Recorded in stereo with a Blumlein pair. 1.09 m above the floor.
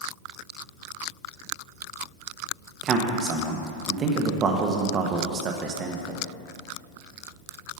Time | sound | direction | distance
2.8 | a man speaking | 25° right | 1.0 m